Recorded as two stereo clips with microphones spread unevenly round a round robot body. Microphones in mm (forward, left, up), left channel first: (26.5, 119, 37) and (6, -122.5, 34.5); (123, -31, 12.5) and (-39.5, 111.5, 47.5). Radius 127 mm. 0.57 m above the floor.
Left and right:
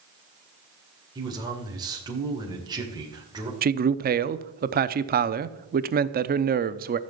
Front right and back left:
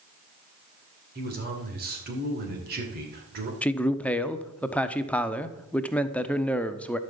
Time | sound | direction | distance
1.1 | a man speaking | 170° right | 2.5 m
3.6 | a man speaking | 110° right | 0.7 m